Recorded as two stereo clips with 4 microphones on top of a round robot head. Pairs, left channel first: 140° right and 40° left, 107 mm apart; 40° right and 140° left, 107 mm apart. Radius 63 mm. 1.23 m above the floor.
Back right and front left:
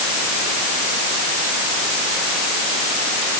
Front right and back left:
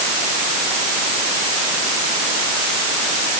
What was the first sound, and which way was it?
Only background noise.